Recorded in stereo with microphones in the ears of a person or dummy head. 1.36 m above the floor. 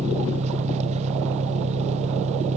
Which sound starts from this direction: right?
An engine running, at 0.0 s.